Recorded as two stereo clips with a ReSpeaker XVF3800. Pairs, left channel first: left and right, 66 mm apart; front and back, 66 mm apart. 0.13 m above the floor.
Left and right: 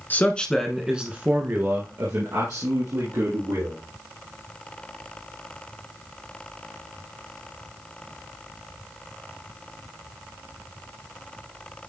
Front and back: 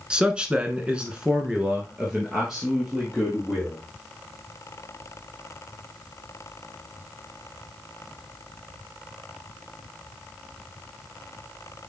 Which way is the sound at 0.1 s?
115° left.